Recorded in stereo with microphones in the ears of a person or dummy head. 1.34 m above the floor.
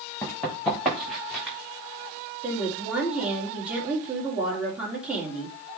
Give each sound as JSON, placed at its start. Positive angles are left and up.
{"t": 0.2, "sound": "running footsteps", "side_deg": 5, "distance_m": 3.5}
{"t": 2.4, "sound": "a woman speaking", "side_deg": -15, "distance_m": 3.0}